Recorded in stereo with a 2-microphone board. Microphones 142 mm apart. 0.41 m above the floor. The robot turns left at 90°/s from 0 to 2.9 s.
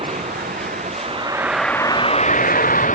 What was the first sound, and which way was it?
A vehicle, 40° right (ahead or behind).